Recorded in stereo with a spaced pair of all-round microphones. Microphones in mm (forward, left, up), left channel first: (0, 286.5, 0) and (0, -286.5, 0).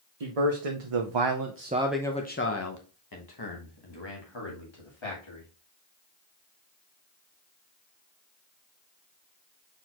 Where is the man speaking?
85° right, 0.9 m; by 5.5 s 55° left (ahead or behind), 2.5 m.